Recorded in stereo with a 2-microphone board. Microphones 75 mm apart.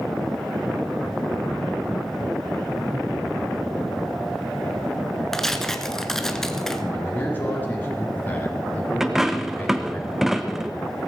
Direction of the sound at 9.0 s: 5° right (ahead or behind).